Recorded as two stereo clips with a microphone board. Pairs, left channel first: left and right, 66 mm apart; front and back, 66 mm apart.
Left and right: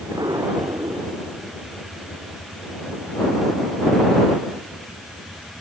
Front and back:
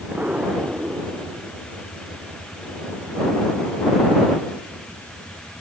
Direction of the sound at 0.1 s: 110° right.